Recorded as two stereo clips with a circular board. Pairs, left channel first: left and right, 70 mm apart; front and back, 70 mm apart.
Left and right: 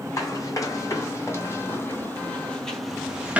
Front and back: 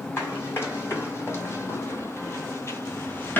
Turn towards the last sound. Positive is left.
turn(degrees=-35)